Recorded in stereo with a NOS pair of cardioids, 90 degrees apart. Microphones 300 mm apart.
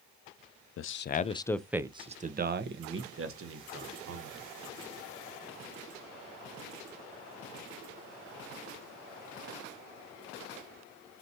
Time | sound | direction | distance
0.8 | a man speaking | 50° left | 0.6 m